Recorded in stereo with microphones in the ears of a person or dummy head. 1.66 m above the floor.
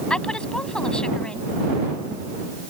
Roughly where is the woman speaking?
Centre.